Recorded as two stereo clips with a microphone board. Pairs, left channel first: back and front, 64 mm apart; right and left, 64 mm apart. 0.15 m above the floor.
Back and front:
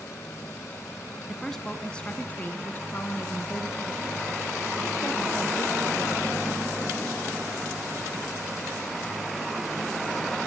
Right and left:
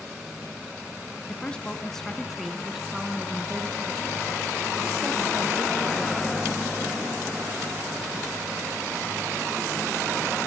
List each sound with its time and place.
1.3 s a woman speaking: 95° right, 1.0 m; by 6.7 s 150° left, 3 m